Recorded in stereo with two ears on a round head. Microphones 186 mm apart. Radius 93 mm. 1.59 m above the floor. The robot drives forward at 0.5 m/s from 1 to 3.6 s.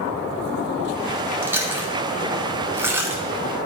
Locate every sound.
1.4 s chewing: 10° right (ahead or behind), 1.0 m